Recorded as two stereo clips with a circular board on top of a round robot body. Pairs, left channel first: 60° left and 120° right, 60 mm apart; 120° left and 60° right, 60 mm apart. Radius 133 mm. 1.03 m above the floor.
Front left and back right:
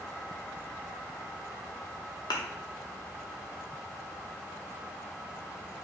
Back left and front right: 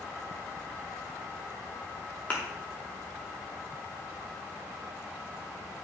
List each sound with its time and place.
2.3 s a thud: 55° left, 0.8 m